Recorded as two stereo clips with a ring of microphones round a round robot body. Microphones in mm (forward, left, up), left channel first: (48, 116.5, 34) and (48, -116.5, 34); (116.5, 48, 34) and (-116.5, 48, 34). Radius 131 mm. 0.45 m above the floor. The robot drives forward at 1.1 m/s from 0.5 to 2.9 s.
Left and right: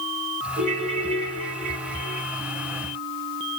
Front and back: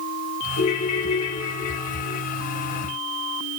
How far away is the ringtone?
About 7 m.